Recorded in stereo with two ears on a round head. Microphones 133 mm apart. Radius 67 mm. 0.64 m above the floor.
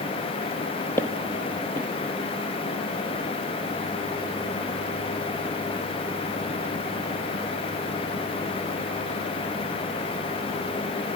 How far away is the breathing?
I don't hear breathing.